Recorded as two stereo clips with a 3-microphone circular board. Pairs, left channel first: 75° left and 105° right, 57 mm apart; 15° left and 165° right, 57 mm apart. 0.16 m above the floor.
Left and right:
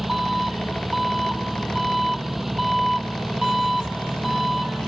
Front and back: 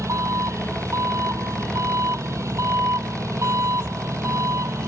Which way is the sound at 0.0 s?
170° left.